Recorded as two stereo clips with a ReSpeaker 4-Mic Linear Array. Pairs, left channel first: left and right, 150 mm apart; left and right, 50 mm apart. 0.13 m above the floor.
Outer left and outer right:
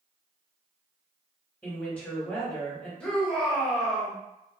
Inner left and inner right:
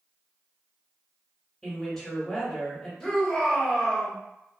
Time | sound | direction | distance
1.6 | a woman speaking | 10° left (ahead or behind) | 1.8 m
3.0 | a shout | 10° left (ahead or behind) | 1.9 m